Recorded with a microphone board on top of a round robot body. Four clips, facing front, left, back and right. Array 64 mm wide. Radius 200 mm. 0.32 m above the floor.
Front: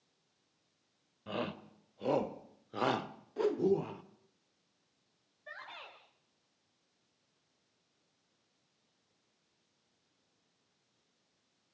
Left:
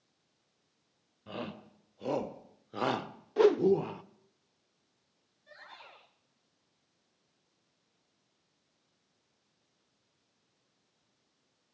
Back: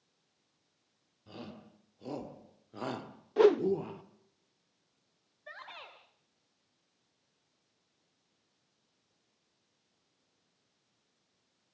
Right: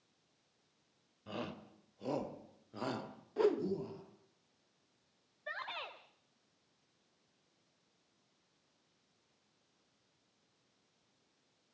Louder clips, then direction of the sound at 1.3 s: Left 3 dB, front 9 dB; 5° left.